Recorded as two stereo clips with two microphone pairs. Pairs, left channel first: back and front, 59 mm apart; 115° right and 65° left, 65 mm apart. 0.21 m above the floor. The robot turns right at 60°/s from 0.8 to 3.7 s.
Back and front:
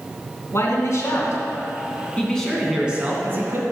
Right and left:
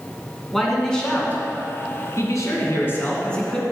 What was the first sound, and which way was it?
A man speaking, 160° left.